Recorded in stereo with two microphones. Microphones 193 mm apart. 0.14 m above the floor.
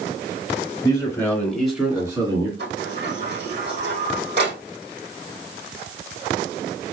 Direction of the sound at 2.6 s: 65° right (ahead or behind).